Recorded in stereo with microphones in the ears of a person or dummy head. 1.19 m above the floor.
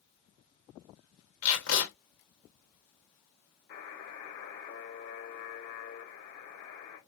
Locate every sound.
1.4 s tape being pulled: 60° left (ahead or behind), 1.2 m
3.7 s a buzzer: 50° left (ahead or behind), 1.3 m